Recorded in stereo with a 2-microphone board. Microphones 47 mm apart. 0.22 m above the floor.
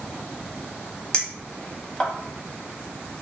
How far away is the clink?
About 0.5 m.